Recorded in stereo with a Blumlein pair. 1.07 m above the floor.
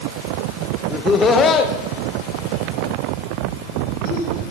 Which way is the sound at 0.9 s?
15° left.